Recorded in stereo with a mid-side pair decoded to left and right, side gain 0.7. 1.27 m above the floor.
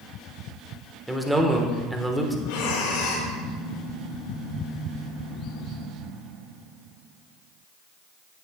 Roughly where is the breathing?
Left.